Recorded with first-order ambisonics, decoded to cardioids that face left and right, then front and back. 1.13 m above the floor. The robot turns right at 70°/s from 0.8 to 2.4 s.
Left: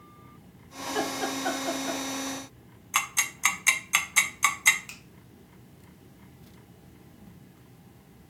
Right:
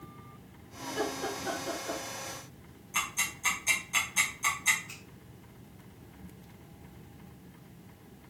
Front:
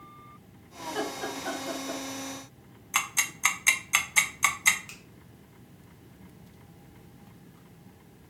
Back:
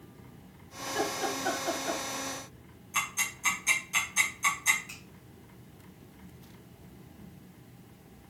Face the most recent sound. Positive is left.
turn(degrees=65)